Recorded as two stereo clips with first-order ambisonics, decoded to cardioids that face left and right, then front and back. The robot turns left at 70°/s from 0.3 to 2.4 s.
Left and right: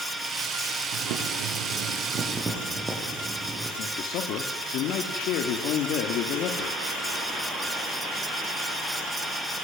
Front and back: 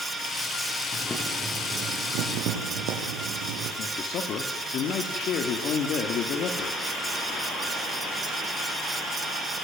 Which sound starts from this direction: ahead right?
Boiling, at 0.9 s.